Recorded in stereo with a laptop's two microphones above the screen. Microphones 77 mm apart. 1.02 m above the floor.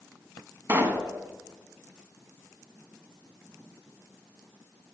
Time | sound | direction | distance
0.7 | a pop | 30° right (ahead or behind) | 1.0 m